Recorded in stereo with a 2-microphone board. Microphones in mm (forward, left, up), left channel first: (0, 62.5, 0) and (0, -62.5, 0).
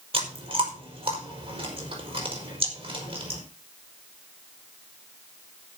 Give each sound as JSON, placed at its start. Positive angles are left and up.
{"t": 0.1, "sound": "chewing", "side_deg": -50, "distance_m": 4.5}